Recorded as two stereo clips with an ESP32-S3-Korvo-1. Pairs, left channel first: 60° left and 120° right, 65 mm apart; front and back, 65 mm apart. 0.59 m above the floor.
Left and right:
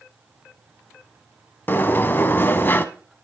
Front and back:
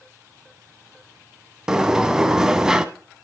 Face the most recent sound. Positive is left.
turn(degrees=105)